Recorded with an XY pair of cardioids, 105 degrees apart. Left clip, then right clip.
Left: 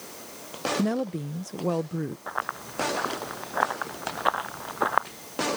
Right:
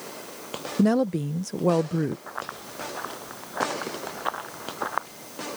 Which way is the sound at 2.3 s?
35° left.